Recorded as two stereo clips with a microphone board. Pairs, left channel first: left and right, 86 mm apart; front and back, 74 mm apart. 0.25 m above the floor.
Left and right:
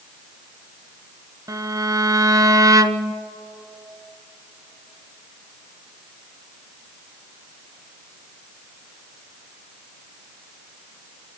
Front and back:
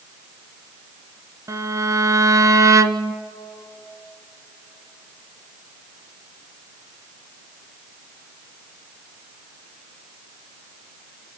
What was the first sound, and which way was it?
A violin, 135° right.